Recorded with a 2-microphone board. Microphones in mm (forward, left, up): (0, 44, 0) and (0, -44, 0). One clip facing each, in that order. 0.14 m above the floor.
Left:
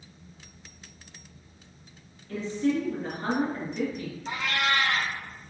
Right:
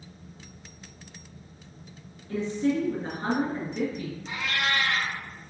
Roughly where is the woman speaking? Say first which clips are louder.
Right 1 dB; right.